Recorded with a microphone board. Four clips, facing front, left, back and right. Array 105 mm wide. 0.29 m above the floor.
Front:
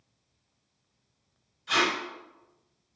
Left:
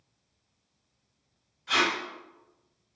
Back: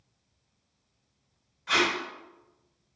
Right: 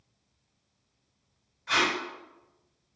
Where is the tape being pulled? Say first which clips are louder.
Even, even; 160° right, 1.1 m.